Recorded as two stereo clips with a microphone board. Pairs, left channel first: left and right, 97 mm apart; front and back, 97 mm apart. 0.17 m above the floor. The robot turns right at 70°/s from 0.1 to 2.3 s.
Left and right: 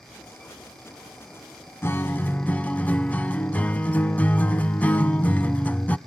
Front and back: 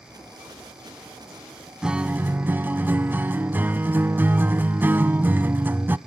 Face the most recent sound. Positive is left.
turn(degrees=140)